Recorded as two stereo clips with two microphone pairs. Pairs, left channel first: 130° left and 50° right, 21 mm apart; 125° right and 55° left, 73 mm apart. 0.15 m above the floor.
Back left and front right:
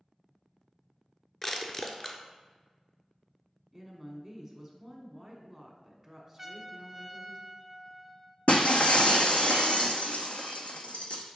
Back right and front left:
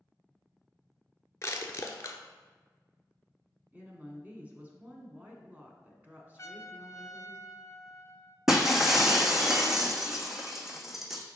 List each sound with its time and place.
1.4 s crushing: 165° right, 0.7 m
3.7 s a woman speaking: 25° left, 1.2 m
6.4 s a trumpet: 120° right, 0.5 m
8.5 s breaking glass: 140° left, 0.8 m